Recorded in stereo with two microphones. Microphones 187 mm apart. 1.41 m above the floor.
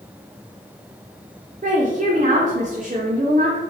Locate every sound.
1.6 s a woman speaking: 45° right (ahead or behind), 0.6 m